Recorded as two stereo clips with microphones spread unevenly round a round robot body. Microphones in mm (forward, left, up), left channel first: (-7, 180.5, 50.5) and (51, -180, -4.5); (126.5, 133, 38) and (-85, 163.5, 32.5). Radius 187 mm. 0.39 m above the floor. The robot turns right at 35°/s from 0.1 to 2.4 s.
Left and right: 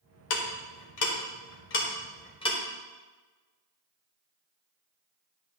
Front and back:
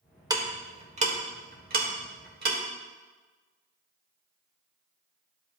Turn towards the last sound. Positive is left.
turn(degrees=180)